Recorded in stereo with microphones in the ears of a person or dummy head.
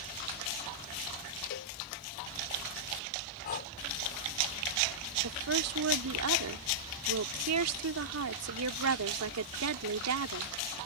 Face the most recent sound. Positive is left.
turn(degrees=-90)